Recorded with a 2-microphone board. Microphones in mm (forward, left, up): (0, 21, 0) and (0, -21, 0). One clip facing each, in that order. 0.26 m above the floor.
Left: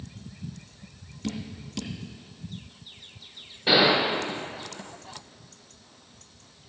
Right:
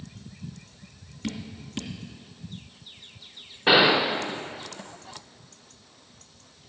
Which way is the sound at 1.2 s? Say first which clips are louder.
Even; 30° right (ahead or behind).